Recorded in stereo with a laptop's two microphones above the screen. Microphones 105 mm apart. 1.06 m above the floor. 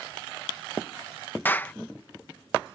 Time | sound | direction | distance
1.4 | a clap | 20° left (ahead or behind) | ?